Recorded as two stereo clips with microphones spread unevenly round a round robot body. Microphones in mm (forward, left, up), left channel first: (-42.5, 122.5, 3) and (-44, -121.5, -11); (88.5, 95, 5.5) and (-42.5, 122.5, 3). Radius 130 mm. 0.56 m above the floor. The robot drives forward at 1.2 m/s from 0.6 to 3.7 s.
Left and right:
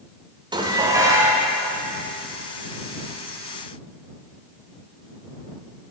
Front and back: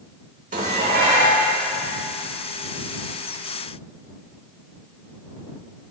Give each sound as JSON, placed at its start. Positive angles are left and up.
{"t": 0.5, "sound": "dishes clattering", "azimuth_deg": -160, "distance_m": 1.1}